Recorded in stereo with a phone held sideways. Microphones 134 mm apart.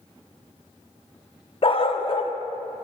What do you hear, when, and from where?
1.6 s a dog barking: 45° left (ahead or behind), 0.5 m